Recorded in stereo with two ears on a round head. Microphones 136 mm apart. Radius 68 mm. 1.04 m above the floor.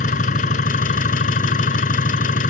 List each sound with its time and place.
0.0 s an engine running: 55° left (ahead or behind)